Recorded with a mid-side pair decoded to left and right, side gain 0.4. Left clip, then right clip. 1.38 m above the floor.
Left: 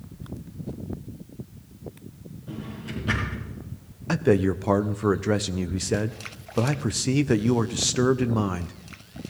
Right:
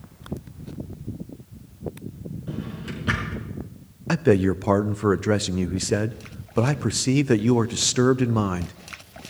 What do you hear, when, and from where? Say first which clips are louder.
2.5 s a drawer: right 1 dB; 50° right, 4.5 m
4.1 s a man speaking: right 2 dB; 25° right, 0.5 m